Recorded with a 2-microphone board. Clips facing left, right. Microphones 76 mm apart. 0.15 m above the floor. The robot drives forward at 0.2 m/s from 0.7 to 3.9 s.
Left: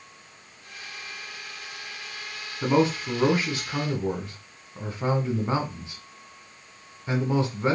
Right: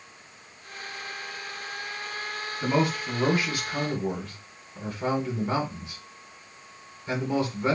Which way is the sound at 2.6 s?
25° left (ahead or behind).